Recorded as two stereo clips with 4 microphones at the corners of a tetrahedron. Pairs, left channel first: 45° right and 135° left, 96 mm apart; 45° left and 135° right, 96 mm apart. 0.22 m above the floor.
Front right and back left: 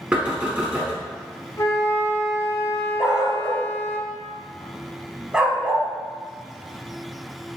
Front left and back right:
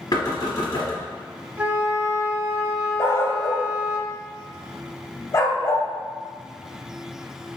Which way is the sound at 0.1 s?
65° left.